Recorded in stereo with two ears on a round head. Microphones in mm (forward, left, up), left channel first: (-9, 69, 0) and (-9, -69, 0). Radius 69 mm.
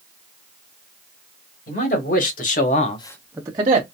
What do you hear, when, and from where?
1.7 s a man speaking: 60° left (ahead or behind), 2.5 m; by 3.8 s 35° right (ahead or behind), 1.2 m